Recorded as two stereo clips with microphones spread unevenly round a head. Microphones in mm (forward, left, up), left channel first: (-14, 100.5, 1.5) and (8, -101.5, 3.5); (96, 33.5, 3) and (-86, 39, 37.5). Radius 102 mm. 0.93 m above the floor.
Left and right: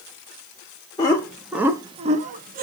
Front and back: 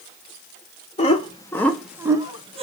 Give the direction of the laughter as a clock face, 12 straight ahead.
11 o'clock.